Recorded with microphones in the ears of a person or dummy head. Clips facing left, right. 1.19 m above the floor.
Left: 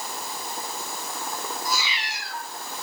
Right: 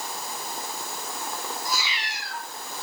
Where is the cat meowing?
65° left (ahead or behind), 2 m.